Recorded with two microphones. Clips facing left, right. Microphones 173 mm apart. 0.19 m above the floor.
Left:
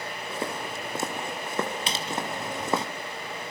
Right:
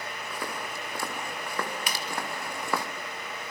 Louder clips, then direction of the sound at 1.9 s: Left 3 dB; 30° left (ahead or behind).